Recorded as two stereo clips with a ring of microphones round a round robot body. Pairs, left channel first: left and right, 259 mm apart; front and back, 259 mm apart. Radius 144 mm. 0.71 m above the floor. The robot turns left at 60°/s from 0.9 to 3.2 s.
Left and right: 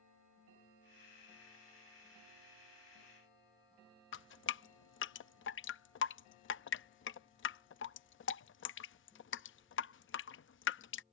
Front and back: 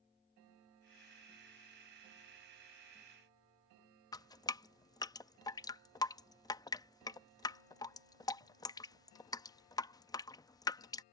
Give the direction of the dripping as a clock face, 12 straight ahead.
10 o'clock.